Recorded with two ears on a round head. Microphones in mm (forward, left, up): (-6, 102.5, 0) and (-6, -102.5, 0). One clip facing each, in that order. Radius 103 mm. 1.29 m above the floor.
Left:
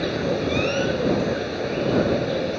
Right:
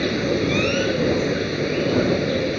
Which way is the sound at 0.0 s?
35° right (ahead or behind).